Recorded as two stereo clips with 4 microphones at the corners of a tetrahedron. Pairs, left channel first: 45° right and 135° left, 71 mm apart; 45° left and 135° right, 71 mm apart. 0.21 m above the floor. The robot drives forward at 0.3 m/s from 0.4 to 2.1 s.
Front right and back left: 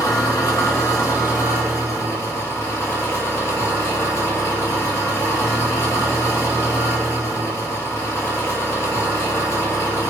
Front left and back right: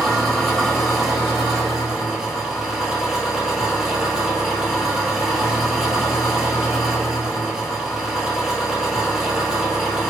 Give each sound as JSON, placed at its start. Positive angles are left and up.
{"t": 0.0, "sound": "an engine running", "azimuth_deg": -40, "distance_m": 1.8}